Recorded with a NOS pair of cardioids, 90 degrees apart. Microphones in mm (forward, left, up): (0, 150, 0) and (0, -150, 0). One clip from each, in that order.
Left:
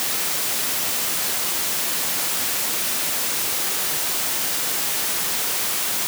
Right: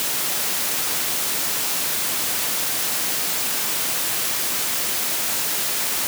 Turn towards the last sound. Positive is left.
No sound to turn to.